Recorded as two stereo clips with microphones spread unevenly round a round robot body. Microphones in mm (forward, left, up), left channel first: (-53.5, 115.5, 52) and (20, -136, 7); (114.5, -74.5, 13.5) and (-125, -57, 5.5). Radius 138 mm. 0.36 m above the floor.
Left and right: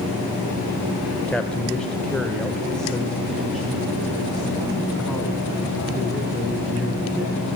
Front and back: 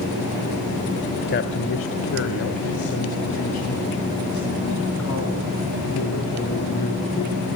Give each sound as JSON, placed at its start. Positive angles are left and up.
{"t": 1.3, "sound": "a man speaking", "azimuth_deg": 10, "distance_m": 1.2}